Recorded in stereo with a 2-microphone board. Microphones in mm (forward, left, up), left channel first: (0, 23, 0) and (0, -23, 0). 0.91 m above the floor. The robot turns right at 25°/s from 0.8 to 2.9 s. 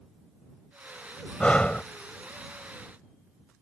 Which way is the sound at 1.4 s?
20° left (ahead or behind).